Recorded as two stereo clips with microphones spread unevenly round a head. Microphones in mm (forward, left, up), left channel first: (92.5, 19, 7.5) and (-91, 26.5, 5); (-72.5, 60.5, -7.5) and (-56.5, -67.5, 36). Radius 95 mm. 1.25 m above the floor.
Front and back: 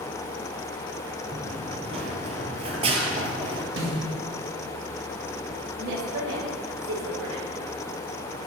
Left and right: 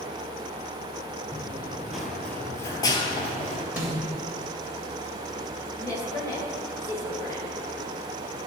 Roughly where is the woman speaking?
Behind.